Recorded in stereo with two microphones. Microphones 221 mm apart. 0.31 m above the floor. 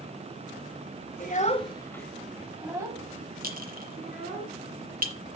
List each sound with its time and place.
1.2 s a child speaking: 40° left (ahead or behind), 1.1 m; by 4.4 s 30° right (ahead or behind), 3 m
3.4 s a clink: 40° right (ahead or behind), 1.9 m